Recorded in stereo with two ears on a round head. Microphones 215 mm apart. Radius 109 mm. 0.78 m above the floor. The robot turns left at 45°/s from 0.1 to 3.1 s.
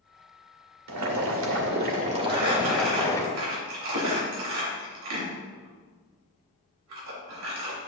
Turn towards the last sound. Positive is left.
turn(degrees=-80)